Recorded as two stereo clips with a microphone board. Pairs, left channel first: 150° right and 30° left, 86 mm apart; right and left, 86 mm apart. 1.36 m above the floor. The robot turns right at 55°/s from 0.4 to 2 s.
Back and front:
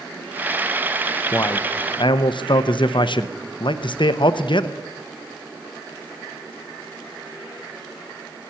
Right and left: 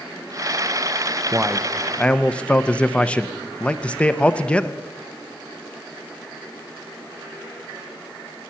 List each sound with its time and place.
1.3 s a man speaking: 155° left, 0.7 m; by 4.8 s 165° right, 0.7 m